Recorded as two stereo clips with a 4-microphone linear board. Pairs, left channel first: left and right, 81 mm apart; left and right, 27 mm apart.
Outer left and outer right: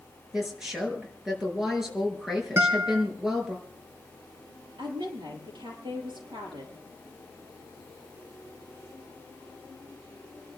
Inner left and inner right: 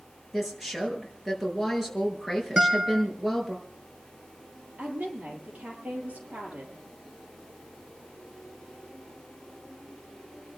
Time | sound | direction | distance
0.3 | a woman speaking | 5° right (ahead or behind) | 5.5 m
2.6 | a guitar | 30° right (ahead or behind) | 2.5 m
4.8 | a woman speaking | 80° right | 7.5 m